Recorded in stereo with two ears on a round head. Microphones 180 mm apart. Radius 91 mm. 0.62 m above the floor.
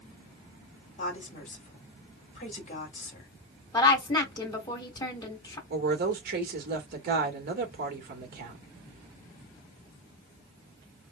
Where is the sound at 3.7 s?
20° left (ahead or behind), 2.5 m.